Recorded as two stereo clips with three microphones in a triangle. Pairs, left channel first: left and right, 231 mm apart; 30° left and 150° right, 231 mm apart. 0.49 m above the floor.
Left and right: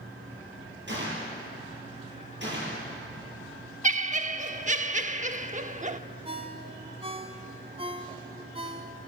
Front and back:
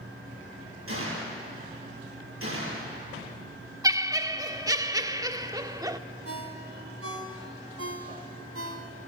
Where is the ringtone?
155° right, 2 m.